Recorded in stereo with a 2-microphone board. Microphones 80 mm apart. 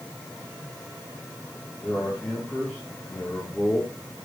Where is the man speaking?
20° left (ahead or behind), 6.5 m.